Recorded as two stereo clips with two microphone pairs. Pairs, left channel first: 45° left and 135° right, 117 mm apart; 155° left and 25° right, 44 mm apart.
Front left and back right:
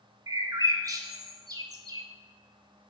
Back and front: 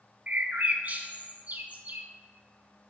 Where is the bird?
80° right, 0.7 m.